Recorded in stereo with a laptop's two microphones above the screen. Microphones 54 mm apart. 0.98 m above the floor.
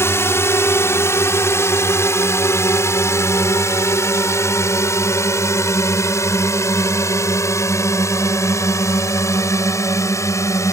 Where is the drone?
55° left (ahead or behind); by 10.7 s 70° left (ahead or behind).